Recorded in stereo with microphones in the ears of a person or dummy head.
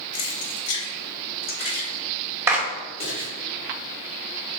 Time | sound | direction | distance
0.1 | keys jangling | 90° left | 1.8 m
2.5 | a clap | 10° right (ahead or behind) | 0.7 m